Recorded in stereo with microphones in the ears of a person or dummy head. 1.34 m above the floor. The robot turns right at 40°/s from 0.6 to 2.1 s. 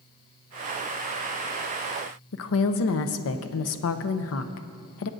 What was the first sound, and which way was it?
A woman speaking, 70° left (ahead or behind).